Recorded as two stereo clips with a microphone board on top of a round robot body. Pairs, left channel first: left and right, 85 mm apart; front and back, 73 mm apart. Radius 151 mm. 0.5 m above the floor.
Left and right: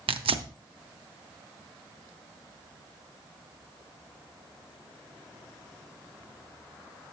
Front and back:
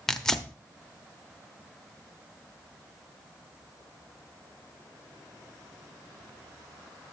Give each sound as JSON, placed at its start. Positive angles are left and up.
{"t": 0.1, "sound": "tearing paper", "azimuth_deg": -85, "distance_m": 0.9}